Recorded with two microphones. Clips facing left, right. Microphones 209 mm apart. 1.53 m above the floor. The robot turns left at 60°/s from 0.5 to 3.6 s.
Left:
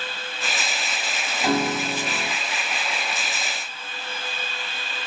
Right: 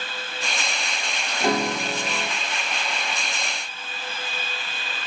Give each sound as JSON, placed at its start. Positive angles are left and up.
{"t": 1.4, "sound": "a piano", "azimuth_deg": -145, "distance_m": 1.7}